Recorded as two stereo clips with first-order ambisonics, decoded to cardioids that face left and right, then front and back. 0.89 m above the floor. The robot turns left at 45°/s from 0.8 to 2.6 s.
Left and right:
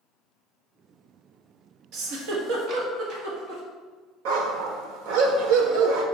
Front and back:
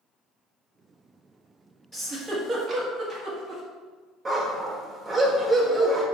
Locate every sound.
1.9 s a giggle: 90° right, 1.6 m; by 3.6 s 120° right, 1.6 m
4.2 s a dog barking: 105° right, 1.1 m